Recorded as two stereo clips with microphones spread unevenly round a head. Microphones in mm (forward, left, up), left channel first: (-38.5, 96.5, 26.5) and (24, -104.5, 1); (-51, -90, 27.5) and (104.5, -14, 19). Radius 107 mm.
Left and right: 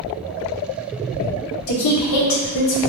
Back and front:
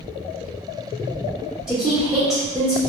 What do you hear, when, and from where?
1.7 s a woman speaking: 115° left, 1.0 m